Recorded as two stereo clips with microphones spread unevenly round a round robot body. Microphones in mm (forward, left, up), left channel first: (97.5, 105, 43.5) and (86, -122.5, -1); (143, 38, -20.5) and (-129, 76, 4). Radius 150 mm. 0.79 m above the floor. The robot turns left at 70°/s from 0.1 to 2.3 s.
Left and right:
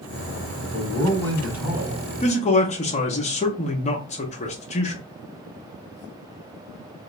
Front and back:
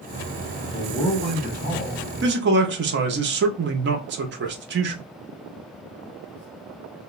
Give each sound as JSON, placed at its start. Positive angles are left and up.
{"t": 0.6, "sound": "a man speaking", "azimuth_deg": 45, "distance_m": 1.5}
{"t": 2.2, "sound": "a man speaking", "azimuth_deg": 155, "distance_m": 0.5}